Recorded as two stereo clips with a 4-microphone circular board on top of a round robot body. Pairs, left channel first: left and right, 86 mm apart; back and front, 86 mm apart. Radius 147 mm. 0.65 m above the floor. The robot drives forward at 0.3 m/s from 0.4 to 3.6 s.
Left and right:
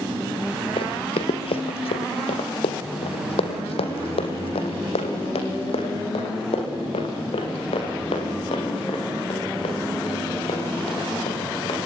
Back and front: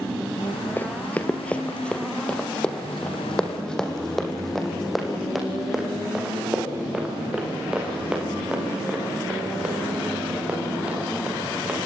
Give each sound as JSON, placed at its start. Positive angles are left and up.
{"t": 0.8, "sound": "running footsteps", "azimuth_deg": 110, "distance_m": 0.8}